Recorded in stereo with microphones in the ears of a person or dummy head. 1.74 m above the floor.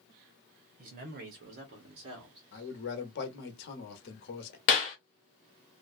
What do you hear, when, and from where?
0.8 s a man speaking: 40° right (ahead or behind), 0.7 m; by 2.4 s 30° right (ahead or behind), 1.2 m
2.5 s a man speaking: 60° left (ahead or behind), 0.9 m
4.7 s a clap: 35° left (ahead or behind), 0.9 m